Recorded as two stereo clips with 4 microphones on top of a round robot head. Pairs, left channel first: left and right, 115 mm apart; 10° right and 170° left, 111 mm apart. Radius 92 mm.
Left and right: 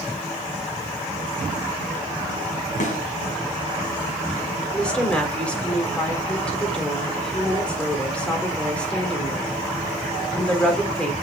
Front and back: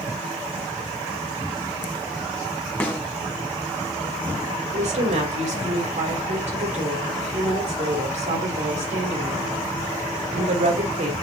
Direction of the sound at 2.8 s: 70° left.